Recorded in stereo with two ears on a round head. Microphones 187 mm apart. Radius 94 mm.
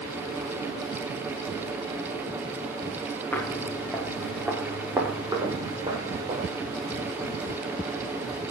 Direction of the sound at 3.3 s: 10° left (ahead or behind).